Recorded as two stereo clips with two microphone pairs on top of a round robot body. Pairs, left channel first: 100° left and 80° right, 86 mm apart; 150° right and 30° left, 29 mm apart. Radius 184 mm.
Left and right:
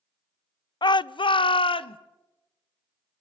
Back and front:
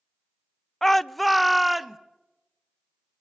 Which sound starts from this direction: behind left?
A shout, at 0.8 s.